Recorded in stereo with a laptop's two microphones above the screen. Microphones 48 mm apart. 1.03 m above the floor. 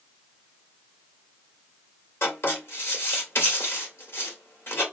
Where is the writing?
60° left (ahead or behind), 2 m.